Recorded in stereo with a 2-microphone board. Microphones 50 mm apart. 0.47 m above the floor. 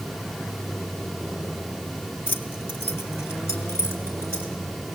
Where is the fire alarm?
I don't hear a fire alarm.